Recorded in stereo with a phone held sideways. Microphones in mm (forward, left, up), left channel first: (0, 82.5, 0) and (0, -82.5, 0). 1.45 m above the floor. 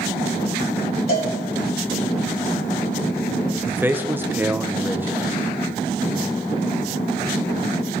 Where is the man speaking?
10° right (ahead or behind), 1.3 m.